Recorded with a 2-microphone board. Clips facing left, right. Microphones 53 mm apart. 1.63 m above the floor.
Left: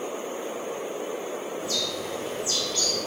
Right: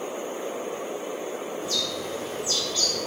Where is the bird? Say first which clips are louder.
Even; 65° left (ahead or behind), 1.2 m.